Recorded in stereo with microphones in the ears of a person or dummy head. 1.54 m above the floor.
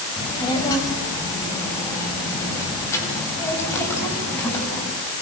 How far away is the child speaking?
About 7.5 m.